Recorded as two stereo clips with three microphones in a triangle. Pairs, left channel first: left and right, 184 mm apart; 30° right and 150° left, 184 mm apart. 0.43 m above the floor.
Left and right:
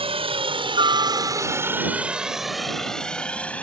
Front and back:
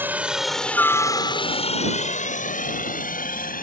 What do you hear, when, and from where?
0.0 s a helicopter: 135° right; by 3.6 s 10° left